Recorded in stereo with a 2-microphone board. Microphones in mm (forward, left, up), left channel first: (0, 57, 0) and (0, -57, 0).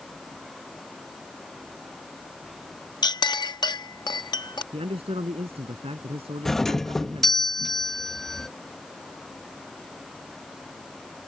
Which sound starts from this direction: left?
A clink, at 3.0 s.